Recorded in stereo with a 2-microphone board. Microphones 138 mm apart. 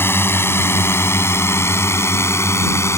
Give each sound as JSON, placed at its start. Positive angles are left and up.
{"t": 0.0, "sound": "a drone", "side_deg": 15}